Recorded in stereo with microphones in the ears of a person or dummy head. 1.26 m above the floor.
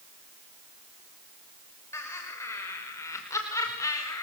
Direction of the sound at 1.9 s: 20° left (ahead or behind).